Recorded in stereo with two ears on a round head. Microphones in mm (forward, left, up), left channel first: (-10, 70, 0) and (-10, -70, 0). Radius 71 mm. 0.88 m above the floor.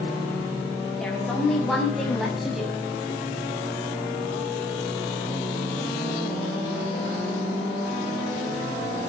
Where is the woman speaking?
5° left (ahead or behind), 7 m; by 2.8 s 5° right (ahead or behind), 6 m.